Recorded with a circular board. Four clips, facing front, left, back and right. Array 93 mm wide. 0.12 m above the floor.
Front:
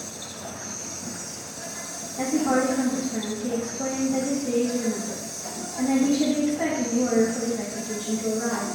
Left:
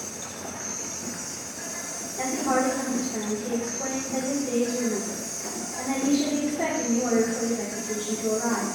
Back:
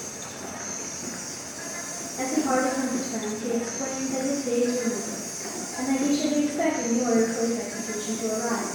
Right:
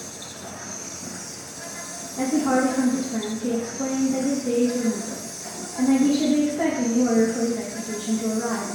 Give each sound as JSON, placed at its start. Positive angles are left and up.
{"t": 0.0, "sound": "an insect", "azimuth_deg": 165, "distance_m": 2.0}
{"t": 2.2, "sound": "a woman speaking", "azimuth_deg": -130, "distance_m": 3.5}